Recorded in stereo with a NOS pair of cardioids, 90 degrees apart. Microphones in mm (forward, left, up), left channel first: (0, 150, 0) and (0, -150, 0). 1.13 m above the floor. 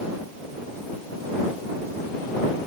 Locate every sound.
Only background noise.